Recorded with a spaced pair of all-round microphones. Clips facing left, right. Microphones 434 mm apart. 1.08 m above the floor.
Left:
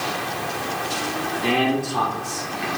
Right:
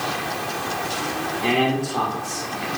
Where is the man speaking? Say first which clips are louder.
Even; 5° left (ahead or behind), 1.9 m; by 2.5 s 25° left (ahead or behind), 2.5 m.